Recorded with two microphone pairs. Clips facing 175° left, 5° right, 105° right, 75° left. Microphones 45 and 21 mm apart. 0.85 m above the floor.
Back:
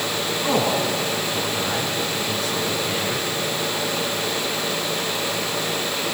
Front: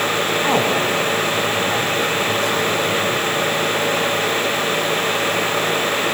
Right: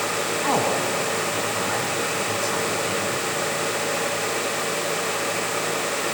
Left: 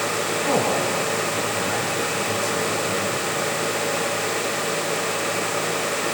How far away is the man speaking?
About 5.5 m.